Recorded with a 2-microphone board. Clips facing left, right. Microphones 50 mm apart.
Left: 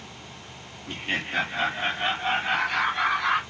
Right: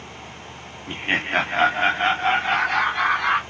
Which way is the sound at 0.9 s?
25° right (ahead or behind).